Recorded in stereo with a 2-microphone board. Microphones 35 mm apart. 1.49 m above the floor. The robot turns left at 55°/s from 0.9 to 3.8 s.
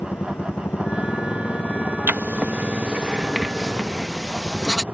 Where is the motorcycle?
105° left; by 4.9 s 55° right.